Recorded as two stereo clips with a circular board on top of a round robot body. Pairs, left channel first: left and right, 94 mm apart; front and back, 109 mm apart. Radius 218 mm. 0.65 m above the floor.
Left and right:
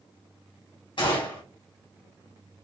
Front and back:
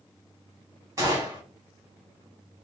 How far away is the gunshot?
About 1.7 m.